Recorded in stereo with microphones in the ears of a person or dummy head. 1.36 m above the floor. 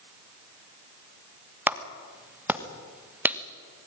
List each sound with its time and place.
1.7 s a clap: 15° right (ahead or behind), 1.5 m